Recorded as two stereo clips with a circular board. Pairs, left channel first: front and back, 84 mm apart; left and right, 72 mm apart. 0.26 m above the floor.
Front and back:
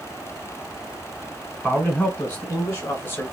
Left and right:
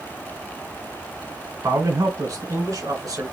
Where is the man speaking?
75° right, 2.5 m; by 3.2 s 60° right, 3.5 m.